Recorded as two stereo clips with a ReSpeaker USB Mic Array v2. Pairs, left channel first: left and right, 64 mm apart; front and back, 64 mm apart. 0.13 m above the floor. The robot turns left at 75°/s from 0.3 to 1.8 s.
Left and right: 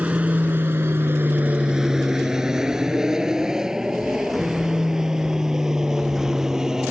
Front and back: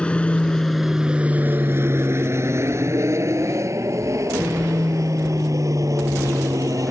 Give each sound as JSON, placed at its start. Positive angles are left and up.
{"t": 0.0, "sound": "an aircraft", "azimuth_deg": -50}